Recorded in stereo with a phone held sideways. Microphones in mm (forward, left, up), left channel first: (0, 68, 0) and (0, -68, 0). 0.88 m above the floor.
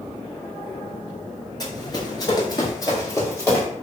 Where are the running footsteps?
30° left (ahead or behind), 0.9 m; by 3.6 s 20° left (ahead or behind), 1.6 m.